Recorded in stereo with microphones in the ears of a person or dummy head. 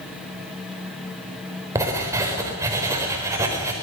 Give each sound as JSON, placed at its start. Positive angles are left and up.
{"t": 1.8, "sound": "writing", "side_deg": -15, "distance_m": 4.5}